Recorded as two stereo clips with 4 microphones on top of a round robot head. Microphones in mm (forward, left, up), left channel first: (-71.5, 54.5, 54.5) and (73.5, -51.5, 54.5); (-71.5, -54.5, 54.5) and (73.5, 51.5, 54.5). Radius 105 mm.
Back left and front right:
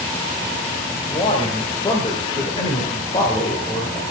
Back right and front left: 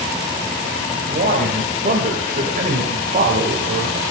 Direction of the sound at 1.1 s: 80° left.